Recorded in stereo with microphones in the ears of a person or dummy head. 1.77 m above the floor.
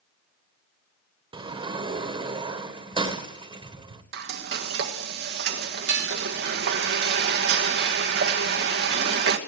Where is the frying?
70° right (ahead or behind), 1.7 m.